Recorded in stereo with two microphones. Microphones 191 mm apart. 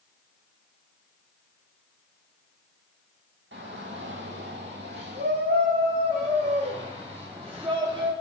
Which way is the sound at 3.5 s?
75° right (ahead or behind).